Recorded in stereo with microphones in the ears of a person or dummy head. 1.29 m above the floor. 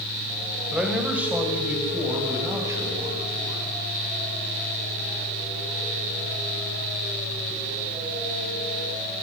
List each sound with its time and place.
0.7 s a man speaking: centre (ahead or behind), 6.5 m; by 3.6 s 15° right (ahead or behind), 10.5 m